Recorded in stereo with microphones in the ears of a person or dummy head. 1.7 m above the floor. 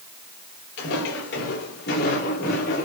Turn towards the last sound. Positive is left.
turn(degrees=55)  # may be behind; listen again after turning